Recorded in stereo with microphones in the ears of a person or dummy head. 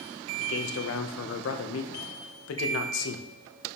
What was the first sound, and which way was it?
A man speaking, 70° left (ahead or behind).